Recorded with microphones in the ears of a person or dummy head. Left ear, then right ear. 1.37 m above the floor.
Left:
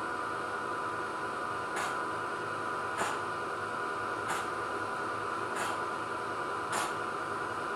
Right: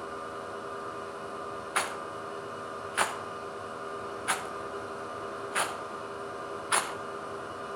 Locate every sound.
0.0 s a machine running: 40° left (ahead or behind), 1.3 m
1.8 s a rattle: 35° right (ahead or behind), 0.6 m